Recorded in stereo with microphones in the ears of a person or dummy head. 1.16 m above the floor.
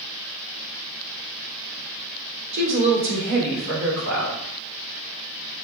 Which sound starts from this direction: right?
A woman speaking, at 2.5 s.